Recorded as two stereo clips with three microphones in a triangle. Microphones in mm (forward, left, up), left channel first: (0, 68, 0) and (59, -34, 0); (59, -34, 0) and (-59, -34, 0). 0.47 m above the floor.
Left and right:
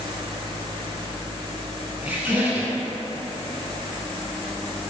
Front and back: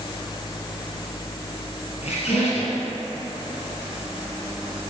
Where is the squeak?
15° left, 2.5 m.